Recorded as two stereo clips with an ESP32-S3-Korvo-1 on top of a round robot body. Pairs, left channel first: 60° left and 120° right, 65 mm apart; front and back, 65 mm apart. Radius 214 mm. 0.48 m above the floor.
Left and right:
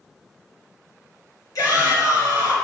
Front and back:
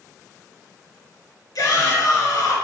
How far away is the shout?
About 3 m.